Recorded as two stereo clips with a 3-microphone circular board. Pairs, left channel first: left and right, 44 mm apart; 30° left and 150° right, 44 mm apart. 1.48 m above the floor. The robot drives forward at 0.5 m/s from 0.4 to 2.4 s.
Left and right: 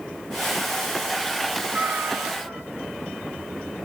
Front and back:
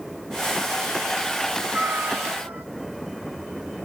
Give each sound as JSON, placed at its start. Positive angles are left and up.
{"t": 1.7, "sound": "a cat meowing", "azimuth_deg": -115, "distance_m": 1.5}